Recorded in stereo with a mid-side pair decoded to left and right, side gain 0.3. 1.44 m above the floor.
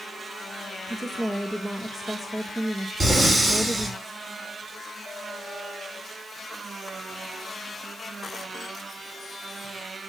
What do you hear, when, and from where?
0.9 s a woman speaking: straight ahead, 1.9 m
3.0 s breathing: 30° right, 8.5 m